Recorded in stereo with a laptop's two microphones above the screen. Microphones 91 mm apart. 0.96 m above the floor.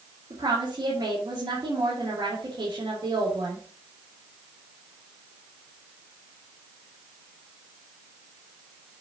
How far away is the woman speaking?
About 2.5 m.